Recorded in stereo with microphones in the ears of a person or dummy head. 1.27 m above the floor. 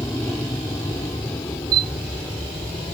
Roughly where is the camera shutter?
Right.